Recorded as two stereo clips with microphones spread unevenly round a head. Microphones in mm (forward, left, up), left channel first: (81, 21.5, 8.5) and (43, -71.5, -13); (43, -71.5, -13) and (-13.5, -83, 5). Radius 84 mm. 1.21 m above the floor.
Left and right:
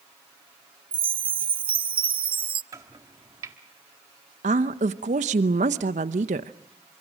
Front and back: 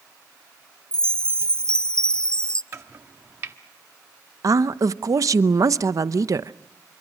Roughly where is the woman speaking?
Behind right.